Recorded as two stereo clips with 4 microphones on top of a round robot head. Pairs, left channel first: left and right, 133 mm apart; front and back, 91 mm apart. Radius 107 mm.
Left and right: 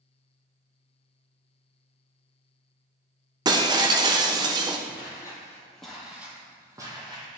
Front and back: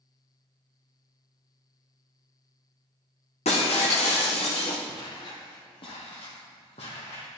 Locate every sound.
3.5 s breaking glass: 35° right, 0.6 m
4.9 s footsteps: 40° left, 1.6 m; by 7.4 s 40° right, 2.0 m